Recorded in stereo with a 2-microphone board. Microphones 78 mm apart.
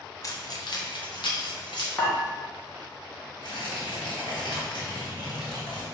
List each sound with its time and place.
0.2 s keys jangling: 40° left (ahead or behind), 0.6 m; by 1.9 s 70° left (ahead or behind), 1.1 m
2.0 s dishes clattering: 30° left (ahead or behind), 1.0 m
3.4 s tearing paper: 70° left (ahead or behind), 1.6 m